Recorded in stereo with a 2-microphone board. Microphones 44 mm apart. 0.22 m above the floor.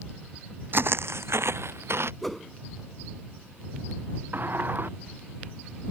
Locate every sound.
0.7 s footsteps: 55° right (ahead or behind); by 2.1 s 70° right (ahead or behind)
2.2 s a whoosh: 5° left (ahead or behind)
4.3 s a sliding door: 50° right (ahead or behind)